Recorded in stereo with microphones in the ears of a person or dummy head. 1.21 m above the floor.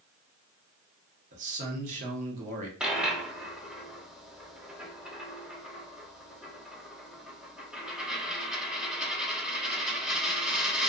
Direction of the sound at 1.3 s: 40° right (ahead or behind).